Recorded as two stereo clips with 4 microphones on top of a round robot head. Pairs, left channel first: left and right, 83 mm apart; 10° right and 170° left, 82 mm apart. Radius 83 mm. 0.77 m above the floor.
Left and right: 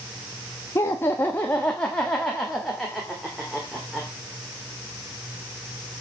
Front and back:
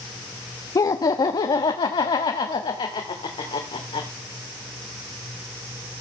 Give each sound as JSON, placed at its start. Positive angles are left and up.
{"t": 0.8, "sound": "laughter", "azimuth_deg": 35, "distance_m": 0.9}